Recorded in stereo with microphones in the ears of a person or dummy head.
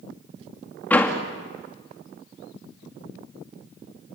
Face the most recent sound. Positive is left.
turn(degrees=15)  # may be behind; listen again after turning